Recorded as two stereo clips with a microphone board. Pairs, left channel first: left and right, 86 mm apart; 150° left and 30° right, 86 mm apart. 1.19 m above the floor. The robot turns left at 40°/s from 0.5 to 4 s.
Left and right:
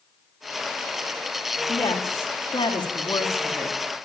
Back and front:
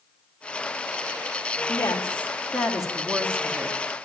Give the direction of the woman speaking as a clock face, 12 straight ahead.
9 o'clock.